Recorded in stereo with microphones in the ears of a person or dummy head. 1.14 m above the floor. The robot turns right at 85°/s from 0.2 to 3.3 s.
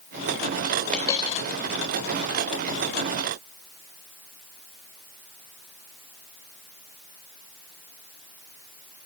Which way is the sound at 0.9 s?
Straight ahead.